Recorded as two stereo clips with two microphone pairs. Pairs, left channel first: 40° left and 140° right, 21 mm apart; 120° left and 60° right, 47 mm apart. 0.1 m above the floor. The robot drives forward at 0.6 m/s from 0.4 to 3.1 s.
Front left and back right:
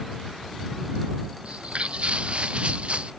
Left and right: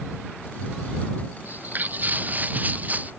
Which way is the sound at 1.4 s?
115° right.